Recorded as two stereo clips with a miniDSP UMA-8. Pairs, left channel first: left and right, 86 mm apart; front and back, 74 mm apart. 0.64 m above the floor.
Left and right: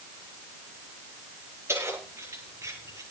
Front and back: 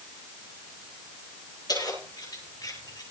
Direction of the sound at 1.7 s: 30° right.